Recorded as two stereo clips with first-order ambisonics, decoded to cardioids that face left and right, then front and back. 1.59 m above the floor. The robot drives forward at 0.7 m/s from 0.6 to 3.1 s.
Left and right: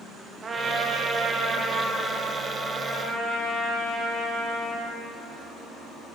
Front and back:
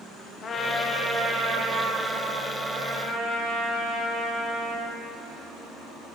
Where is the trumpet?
40° right, 0.6 m; by 5.0 s 170° right, 1.6 m.